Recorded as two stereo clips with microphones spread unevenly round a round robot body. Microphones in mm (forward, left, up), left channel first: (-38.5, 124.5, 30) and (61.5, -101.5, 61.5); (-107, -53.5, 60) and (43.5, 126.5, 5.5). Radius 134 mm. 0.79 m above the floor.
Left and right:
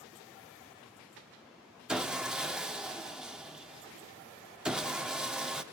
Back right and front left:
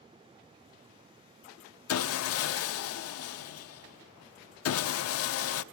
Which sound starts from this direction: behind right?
Sawing, at 1.9 s.